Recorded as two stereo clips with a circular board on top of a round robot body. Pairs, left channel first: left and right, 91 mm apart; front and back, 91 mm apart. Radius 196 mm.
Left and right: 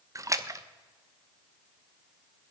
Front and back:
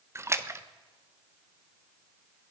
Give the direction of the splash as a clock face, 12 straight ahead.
4 o'clock.